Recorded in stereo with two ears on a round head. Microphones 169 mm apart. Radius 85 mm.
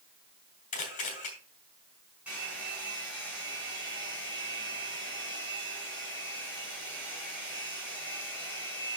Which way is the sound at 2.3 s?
5° right (ahead or behind).